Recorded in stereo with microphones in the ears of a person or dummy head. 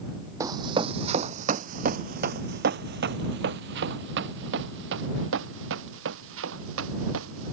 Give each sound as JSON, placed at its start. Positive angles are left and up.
{"t": 0.4, "sound": "running footsteps", "side_deg": -20}